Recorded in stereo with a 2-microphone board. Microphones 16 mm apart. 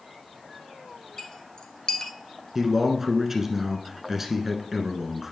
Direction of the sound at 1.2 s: 45° left (ahead or behind).